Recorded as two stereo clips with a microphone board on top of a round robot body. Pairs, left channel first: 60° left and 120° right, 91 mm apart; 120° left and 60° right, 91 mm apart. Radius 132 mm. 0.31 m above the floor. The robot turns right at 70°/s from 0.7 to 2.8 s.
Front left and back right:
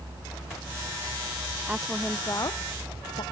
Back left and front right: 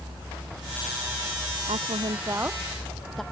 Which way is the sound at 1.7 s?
45° right.